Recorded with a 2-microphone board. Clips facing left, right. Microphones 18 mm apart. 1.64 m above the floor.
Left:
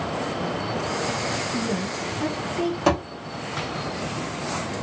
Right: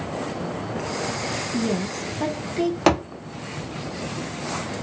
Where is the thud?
30° right (ahead or behind), 1.2 m.